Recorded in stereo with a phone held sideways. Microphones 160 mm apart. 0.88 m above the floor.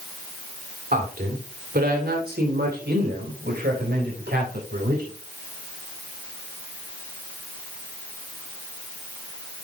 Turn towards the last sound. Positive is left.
turn(degrees=-80)